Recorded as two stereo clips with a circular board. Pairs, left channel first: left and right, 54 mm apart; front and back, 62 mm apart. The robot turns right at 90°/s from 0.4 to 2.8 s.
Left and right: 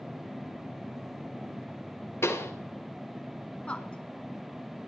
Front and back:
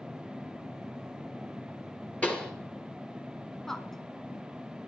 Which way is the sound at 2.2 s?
60° left.